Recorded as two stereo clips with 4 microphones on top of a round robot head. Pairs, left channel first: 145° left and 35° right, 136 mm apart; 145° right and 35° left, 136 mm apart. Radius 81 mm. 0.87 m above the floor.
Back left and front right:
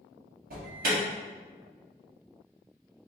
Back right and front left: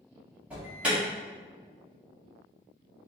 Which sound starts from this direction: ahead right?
An alarm, at 0.5 s.